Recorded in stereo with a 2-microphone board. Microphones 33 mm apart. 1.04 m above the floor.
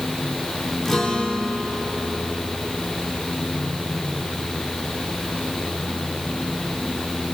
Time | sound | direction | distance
0.8 | a guitar | 10° left (ahead or behind) | 3 m